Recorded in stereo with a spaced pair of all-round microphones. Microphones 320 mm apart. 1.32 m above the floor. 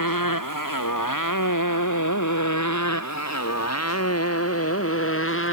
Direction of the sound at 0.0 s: 85° left.